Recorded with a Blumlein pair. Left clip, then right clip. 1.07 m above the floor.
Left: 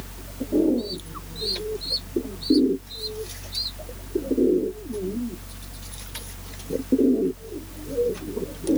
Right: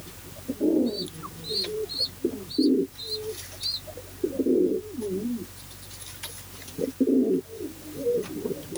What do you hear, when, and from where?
0.0 s a fan: 70° left, 1.2 m